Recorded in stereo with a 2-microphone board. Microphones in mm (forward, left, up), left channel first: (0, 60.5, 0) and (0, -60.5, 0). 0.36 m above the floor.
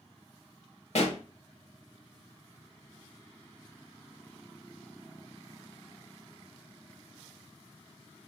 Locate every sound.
0.9 s a pop: 65° left (ahead or behind), 1.0 m